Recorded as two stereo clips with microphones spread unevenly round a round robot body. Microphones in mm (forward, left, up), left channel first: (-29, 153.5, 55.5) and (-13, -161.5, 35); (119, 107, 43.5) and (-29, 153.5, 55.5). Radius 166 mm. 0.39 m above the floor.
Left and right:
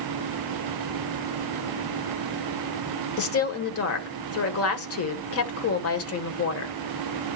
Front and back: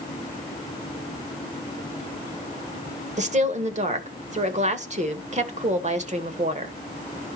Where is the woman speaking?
130° left, 1.7 m.